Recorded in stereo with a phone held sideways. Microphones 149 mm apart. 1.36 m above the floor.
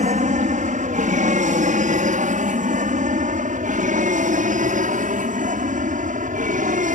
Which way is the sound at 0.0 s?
60° right (ahead or behind).